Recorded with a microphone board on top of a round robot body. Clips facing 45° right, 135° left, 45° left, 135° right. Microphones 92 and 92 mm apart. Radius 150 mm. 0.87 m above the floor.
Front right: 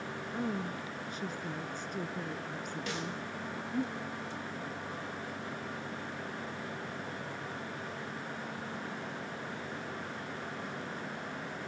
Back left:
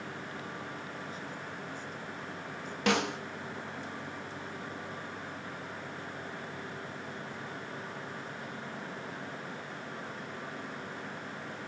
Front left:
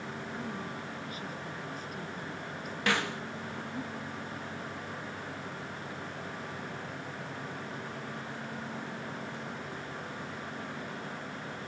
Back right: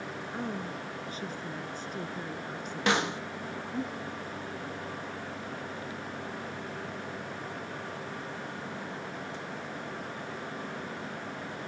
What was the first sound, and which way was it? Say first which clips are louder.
A woman speaking: front right 5 dB, back right 5 dB; 75° right.